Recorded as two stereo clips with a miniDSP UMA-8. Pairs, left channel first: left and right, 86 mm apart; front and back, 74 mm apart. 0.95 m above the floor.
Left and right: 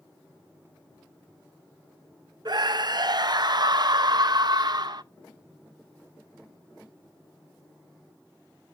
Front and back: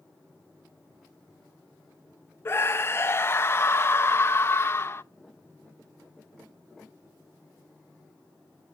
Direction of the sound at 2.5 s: 55° right.